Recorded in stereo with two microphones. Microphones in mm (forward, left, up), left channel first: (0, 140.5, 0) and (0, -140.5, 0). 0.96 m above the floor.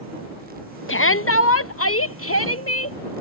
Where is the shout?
45° left (ahead or behind); by 3.0 s 50° left (ahead or behind).